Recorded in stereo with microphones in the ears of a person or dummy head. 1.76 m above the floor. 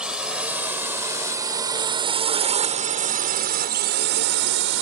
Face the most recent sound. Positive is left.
turn(degrees=-75)  # may be behind; listen again after turning